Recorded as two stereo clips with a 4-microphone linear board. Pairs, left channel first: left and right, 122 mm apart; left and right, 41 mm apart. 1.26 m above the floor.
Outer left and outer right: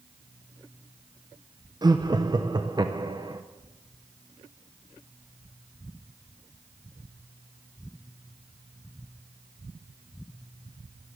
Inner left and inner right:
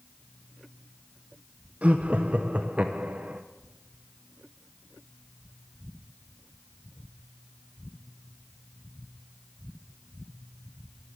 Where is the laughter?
35° right (ahead or behind), 0.6 m.